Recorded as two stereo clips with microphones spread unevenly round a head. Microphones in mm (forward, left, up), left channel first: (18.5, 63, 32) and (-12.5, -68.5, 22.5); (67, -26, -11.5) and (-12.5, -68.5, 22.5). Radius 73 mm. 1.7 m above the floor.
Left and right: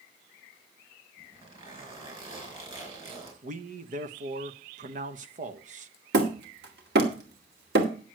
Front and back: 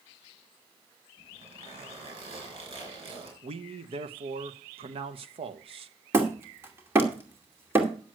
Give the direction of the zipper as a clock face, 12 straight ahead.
5 o'clock.